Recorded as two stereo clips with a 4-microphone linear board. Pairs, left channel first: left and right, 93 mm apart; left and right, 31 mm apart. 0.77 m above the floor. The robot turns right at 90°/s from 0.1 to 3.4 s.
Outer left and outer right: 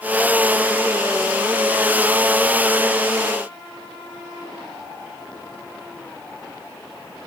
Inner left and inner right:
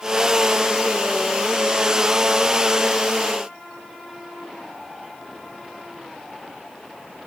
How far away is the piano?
I don't hear a piano.